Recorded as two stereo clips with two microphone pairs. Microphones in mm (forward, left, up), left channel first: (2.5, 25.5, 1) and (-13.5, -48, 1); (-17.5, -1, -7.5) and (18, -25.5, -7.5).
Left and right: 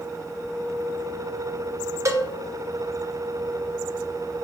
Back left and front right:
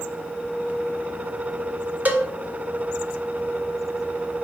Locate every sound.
2.0 s a cowbell: 70° right, 0.6 m